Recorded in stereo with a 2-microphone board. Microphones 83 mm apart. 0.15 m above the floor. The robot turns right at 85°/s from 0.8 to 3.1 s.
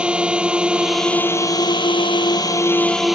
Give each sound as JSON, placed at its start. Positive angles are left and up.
{"t": 0.0, "sound": "a drone", "azimuth_deg": -10}